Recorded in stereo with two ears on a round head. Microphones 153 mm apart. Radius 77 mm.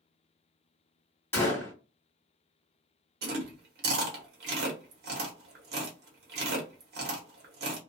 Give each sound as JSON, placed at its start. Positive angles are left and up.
{"t": 1.3, "sound": "a gunshot", "side_deg": 15, "distance_m": 1.7}
{"t": 3.2, "sound": "chewing", "side_deg": -65, "distance_m": 1.1}